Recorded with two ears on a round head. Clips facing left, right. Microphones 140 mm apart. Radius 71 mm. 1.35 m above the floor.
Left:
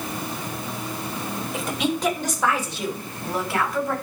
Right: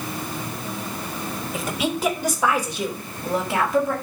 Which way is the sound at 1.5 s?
Centre (ahead or behind).